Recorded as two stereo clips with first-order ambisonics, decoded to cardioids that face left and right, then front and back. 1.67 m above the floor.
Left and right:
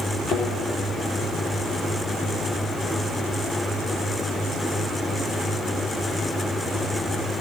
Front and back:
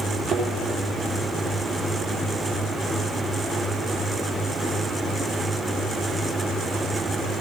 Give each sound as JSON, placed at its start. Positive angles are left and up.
{"t": 0.3, "sound": "a thud", "azimuth_deg": 100, "distance_m": 3.5}